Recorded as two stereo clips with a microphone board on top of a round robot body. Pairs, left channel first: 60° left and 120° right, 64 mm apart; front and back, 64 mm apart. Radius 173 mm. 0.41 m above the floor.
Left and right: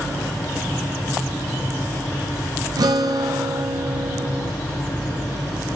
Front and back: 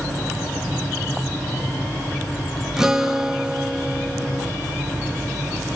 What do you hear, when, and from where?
2.8 s a guitar: 95° right, 0.7 m